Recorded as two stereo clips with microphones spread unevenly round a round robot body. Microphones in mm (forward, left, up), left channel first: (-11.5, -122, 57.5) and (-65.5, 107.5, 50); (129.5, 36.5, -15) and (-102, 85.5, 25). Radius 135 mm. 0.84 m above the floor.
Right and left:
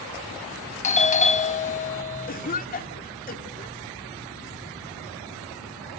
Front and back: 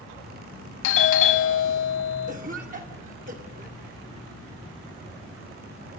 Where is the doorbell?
20° right, 1.5 m.